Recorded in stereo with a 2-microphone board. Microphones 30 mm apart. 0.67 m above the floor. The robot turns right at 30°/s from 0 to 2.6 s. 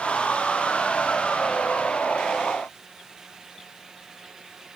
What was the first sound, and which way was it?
Only background noise.